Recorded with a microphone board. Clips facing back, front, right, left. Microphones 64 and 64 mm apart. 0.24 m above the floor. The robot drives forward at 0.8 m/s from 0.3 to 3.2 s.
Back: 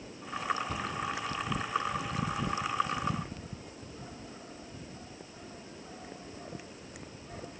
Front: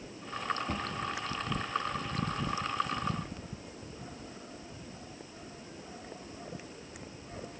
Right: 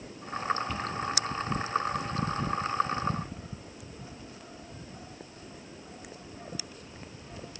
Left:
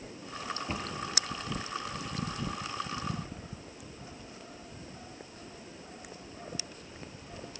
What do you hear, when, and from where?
0.7 s a cupboard door: 25° left, 2.5 m; by 1.0 s 30° left, 2.5 m